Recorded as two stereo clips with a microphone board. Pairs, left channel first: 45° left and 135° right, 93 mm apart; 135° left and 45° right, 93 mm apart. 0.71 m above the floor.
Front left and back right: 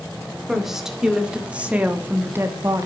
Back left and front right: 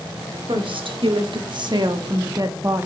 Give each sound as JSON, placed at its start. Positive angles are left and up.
{"t": 0.5, "sound": "a woman speaking", "azimuth_deg": -50, "distance_m": 2.0}